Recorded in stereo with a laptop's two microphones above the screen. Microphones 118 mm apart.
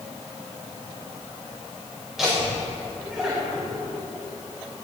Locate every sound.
2.2 s laughter: 5° right (ahead or behind), 4.5 m